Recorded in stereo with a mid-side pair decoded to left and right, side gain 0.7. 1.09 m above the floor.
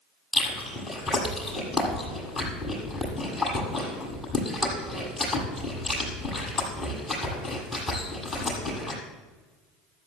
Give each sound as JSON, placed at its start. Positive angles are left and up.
{"t": 0.3, "sound": "chewing", "azimuth_deg": 15, "distance_m": 6.5}